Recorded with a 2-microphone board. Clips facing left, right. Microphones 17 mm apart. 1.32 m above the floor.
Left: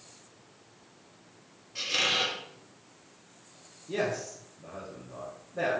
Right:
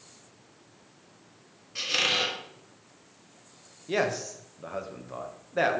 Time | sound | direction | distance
1.8 | a squeak | 15° right (ahead or behind) | 0.9 m
3.9 | a man speaking | 80° right | 1.1 m